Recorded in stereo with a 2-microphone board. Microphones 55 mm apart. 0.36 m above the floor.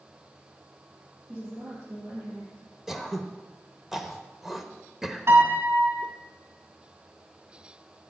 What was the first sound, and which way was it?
A woman speaking, 35° right (ahead or behind).